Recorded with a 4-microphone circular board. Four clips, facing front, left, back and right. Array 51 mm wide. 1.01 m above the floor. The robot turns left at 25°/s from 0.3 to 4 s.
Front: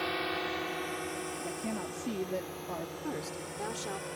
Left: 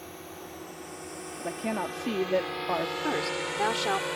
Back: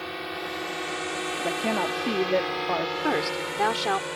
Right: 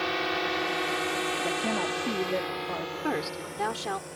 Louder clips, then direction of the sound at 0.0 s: Right 14 dB, even; 85° right.